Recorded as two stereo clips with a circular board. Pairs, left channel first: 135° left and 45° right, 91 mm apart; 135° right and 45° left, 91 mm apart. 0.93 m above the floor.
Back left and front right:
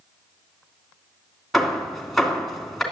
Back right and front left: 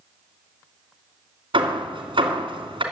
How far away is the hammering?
About 2.5 m.